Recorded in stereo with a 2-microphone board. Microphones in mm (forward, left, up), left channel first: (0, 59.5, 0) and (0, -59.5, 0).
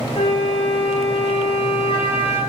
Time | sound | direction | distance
0.1 | a flute | 45° left (ahead or behind) | 9.5 m